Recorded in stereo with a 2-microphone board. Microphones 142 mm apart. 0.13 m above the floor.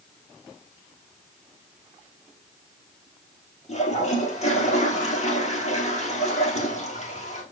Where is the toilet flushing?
50° left (ahead or behind), 1.8 m.